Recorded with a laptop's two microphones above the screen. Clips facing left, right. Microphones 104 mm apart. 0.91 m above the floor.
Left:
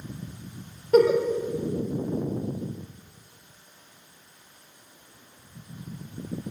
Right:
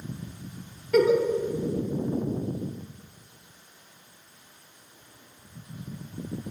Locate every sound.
0.9 s a giggle: 35° left (ahead or behind), 1.1 m